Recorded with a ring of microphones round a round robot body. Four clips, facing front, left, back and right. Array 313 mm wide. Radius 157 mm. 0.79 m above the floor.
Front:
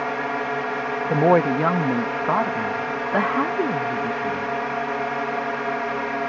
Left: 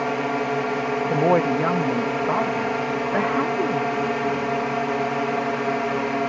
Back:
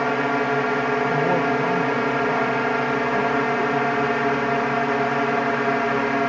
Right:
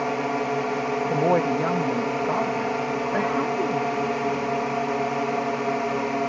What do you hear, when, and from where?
0.0 s a drone: 165° left
1.1 s a woman speaking: 20° left